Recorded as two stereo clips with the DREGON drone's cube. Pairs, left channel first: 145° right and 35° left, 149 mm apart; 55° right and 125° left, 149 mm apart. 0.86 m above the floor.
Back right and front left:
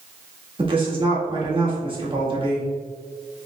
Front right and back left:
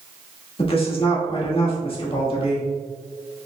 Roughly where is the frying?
I don't hear frying.